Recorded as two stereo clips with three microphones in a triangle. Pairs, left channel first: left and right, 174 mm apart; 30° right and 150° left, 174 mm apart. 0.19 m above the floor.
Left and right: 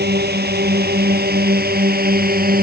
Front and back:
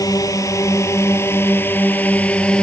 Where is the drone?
100° right; by 2.6 s 115° right.